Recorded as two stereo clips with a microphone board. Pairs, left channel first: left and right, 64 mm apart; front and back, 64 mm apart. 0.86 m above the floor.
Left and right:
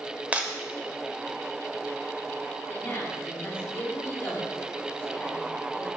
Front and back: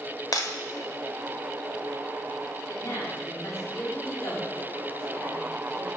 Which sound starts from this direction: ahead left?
A woman speaking, at 2.7 s.